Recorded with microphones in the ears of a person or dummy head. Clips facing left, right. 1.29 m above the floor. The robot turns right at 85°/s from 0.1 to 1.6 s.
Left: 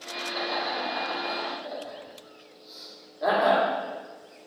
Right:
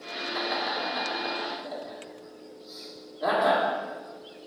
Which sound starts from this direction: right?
Laughter, at 0.3 s.